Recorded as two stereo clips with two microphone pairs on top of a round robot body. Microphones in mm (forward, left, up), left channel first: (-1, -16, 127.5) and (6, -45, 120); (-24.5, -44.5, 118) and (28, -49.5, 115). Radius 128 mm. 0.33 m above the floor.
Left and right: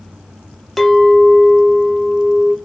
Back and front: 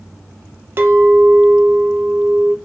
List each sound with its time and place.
0.8 s a clink: 20° left, 0.7 m